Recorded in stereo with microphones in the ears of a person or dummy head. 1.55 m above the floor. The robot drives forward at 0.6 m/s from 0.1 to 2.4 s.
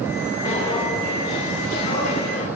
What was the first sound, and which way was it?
Footsteps, 20° left (ahead or behind).